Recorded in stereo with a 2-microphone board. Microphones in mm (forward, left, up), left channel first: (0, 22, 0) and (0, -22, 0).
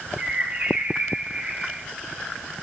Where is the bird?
35° right (ahead or behind), 0.7 m.